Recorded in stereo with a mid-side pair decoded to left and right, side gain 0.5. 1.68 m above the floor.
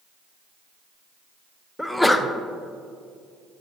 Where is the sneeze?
10° left, 0.7 m.